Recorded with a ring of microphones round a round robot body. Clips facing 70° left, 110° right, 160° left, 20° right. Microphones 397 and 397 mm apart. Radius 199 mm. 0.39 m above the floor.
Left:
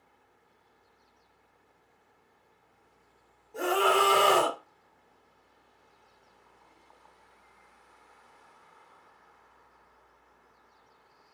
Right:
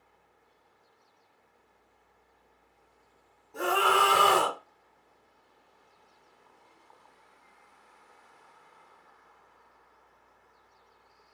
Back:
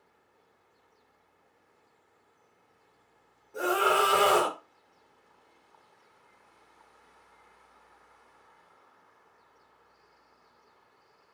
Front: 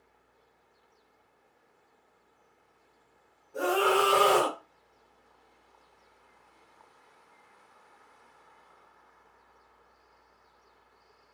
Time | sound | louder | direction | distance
3.5 | a scream | left 2 dB, front 2 dB | 170° right | 1.2 m